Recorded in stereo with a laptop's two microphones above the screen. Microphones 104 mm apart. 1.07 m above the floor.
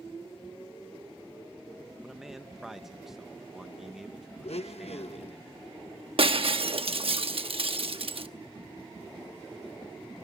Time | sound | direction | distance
2.0 | a man speaking | 5° right (ahead or behind) | 0.7 m
4.4 | a blender | 80° left | 0.8 m
6.2 | breaking glass | 60° right (ahead or behind) | 1.0 m